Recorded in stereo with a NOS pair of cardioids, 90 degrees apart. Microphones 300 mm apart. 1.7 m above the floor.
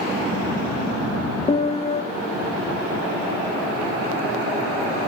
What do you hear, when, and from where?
1.5 s a piano: 20° left, 0.9 m